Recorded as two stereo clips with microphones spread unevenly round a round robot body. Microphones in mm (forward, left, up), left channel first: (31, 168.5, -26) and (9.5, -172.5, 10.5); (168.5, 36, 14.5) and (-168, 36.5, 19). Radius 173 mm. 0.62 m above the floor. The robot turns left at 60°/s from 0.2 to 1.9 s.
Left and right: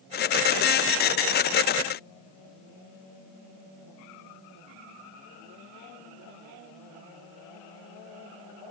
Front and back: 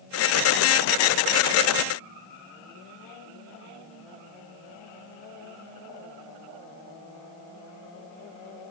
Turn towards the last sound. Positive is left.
No sound to turn to.